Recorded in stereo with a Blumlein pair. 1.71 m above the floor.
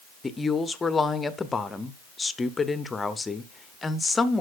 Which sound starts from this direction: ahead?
A woman speaking, at 0.2 s.